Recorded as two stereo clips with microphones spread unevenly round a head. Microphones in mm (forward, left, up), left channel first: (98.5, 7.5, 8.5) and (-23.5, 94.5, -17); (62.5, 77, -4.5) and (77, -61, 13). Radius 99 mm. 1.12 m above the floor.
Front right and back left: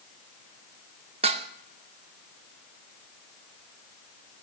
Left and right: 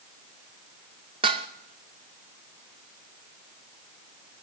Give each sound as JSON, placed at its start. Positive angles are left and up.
{"t": 1.2, "sound": "dishes clattering", "azimuth_deg": -150, "distance_m": 0.6}